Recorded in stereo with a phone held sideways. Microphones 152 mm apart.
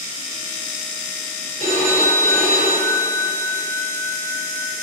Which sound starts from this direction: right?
A phone ringing, at 1.6 s.